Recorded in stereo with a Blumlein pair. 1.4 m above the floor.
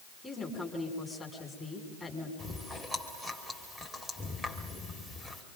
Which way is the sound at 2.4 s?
5° left.